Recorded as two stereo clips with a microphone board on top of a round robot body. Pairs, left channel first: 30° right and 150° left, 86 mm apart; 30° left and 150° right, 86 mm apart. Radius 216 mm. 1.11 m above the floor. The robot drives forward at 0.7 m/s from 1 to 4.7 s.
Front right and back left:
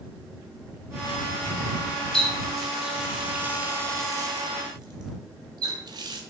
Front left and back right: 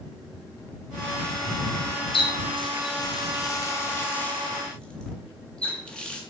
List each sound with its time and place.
2.1 s a running tap: 50° left, 2.0 m; by 6.2 s 110° left, 1.6 m